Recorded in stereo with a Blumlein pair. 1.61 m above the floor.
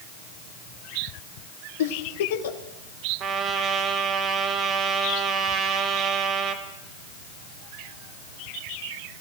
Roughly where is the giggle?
Ahead left.